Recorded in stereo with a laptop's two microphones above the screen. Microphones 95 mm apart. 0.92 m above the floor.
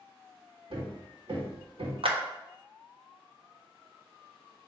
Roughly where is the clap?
Right.